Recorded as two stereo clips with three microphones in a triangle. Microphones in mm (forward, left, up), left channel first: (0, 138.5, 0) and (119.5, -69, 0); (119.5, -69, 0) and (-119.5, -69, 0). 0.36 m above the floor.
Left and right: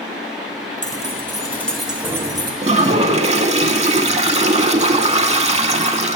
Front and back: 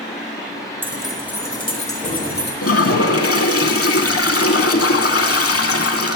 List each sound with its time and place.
0.8 s keys jangling: 105° left, 0.8 m; by 2.5 s 5° left, 1.0 m
2.6 s a toilet flushing: 5° left, 0.5 m